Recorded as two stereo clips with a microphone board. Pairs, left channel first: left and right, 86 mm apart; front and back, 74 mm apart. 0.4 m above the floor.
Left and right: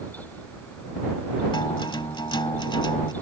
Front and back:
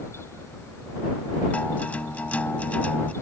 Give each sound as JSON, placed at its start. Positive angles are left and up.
{"t": 1.5, "sound": "a guitar", "azimuth_deg": 70}